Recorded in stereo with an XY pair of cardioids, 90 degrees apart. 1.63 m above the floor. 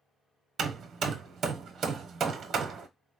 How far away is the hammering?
About 0.8 m.